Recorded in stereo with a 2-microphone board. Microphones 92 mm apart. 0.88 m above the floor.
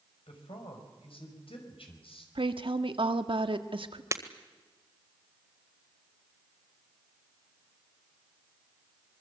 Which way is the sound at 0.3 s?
80° left.